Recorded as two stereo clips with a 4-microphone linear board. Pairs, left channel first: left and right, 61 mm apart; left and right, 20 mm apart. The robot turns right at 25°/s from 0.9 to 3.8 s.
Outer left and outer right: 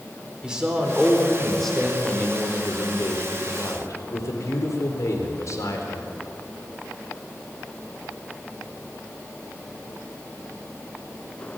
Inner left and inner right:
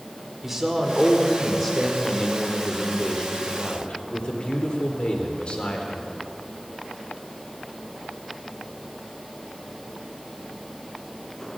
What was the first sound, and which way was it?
A man speaking, 15° right.